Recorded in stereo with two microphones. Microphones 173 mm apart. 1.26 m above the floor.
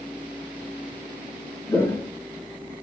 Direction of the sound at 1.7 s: 10° left (ahead or behind).